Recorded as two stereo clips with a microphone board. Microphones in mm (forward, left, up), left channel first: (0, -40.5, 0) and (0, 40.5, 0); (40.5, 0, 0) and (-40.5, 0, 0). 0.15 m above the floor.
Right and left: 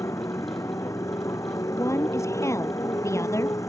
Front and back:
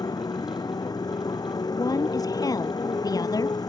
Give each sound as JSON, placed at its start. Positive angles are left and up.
{"t": 0.0, "sound": "a motorcycle", "azimuth_deg": -40}
{"t": 1.7, "sound": "a woman speaking", "azimuth_deg": -40}